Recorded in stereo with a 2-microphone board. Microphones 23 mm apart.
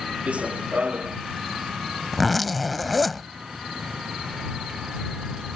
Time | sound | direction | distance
0.3 | running footsteps | 65° right (ahead or behind) | ?
2.1 | a zipper | centre (ahead or behind) | ?